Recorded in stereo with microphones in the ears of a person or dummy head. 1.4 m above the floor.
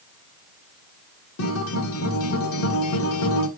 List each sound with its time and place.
1.4 s a guitar: 65° left (ahead or behind), 1.1 m